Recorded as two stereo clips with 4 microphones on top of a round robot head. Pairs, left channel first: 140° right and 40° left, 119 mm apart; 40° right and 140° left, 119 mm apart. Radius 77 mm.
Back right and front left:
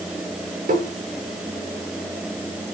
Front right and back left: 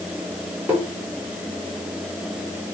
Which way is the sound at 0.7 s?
60° left.